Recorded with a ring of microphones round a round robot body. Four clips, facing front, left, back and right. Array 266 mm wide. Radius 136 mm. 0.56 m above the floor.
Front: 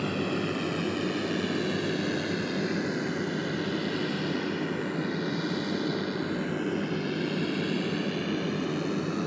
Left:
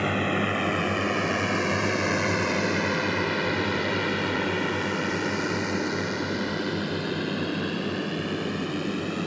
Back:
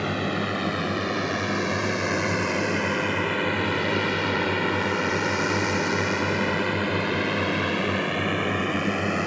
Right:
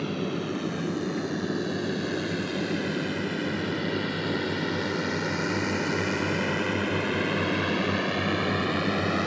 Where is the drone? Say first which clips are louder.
Left 4 dB, back 3 dB; 120° left; by 9.3 s 145° right.